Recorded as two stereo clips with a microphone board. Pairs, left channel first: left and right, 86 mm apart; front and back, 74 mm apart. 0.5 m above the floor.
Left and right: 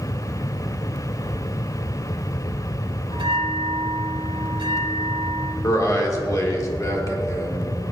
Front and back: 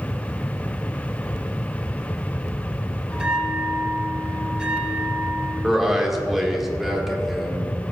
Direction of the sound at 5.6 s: 95° left.